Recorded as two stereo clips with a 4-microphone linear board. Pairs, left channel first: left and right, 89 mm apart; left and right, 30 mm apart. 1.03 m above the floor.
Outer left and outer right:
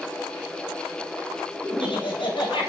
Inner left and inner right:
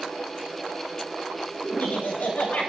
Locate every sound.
1.6 s laughter: 85° left, 7.5 m